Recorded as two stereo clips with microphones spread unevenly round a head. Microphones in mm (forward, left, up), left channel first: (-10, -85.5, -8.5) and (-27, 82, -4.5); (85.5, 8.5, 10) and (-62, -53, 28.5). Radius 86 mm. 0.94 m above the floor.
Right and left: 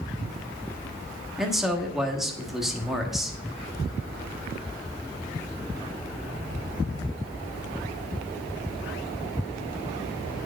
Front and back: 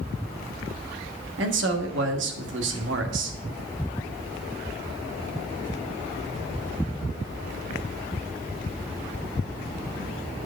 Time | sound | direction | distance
1.4 | a man speaking | 175° right | 1.3 m